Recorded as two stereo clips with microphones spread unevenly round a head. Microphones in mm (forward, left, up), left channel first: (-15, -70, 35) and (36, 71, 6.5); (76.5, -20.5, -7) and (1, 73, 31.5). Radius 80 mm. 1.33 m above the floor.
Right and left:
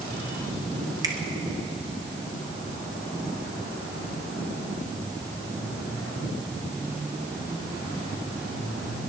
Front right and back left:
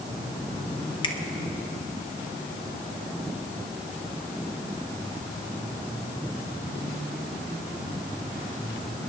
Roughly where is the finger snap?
Ahead.